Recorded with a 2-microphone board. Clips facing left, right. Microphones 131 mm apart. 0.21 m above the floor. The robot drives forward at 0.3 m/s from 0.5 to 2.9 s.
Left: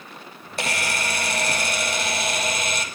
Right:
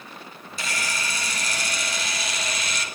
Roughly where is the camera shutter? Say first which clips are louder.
Left 5 dB; left.